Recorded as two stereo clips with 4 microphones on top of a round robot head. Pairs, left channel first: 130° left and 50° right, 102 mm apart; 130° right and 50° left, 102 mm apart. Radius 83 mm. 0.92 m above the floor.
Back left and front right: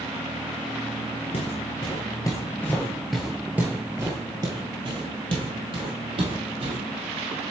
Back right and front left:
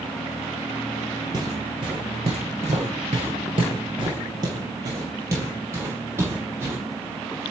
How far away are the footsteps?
About 1.3 m.